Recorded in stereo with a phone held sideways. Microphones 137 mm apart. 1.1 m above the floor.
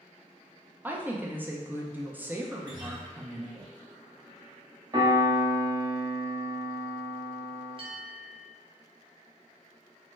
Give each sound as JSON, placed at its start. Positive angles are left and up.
{"t": 0.8, "sound": "a woman speaking", "side_deg": -10, "distance_m": 0.5}
{"t": 2.6, "sound": "a guitar", "side_deg": -30, "distance_m": 1.6}
{"t": 4.9, "sound": "a piano", "side_deg": -35, "distance_m": 1.1}
{"t": 7.8, "sound": "a bell", "side_deg": -40, "distance_m": 0.6}